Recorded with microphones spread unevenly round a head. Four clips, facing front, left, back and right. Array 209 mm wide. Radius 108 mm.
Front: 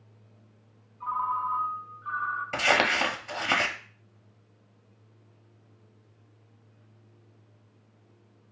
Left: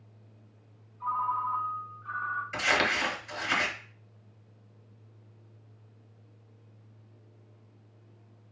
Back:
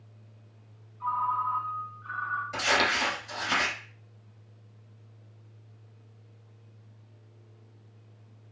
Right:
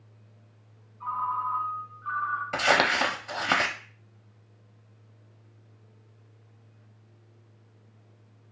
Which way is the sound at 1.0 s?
100° left.